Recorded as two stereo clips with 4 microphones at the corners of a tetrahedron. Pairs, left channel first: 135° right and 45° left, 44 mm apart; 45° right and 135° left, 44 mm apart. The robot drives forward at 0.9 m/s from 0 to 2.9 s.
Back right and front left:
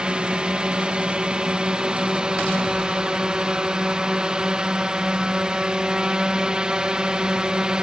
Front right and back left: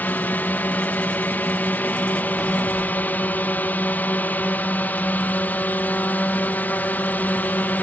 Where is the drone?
15° right; by 7.8 s 20° right.